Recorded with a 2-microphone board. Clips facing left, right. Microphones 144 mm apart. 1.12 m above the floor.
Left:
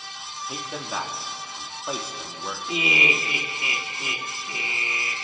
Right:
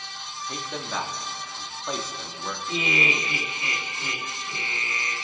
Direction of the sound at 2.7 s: 20° left (ahead or behind).